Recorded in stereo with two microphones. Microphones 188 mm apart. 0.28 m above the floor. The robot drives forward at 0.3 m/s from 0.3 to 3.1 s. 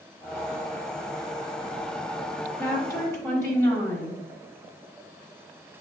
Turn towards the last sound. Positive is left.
turn(degrees=15)  # may be behind; listen again after turning